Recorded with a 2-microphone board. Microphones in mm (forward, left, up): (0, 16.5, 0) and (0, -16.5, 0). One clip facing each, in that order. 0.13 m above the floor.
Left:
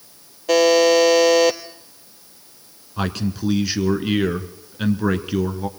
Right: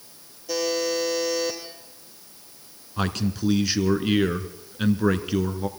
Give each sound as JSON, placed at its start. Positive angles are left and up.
{"t": 0.5, "sound": "a buzzer", "side_deg": 60, "distance_m": 1.2}
{"t": 3.0, "sound": "a man speaking", "side_deg": 5, "distance_m": 1.2}